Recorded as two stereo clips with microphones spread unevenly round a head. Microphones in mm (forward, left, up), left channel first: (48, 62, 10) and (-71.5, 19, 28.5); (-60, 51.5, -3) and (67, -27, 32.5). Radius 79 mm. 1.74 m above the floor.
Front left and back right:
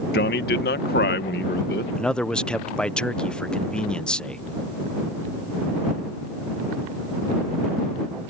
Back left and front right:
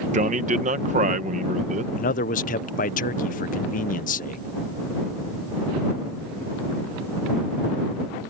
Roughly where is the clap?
I don't hear a clap.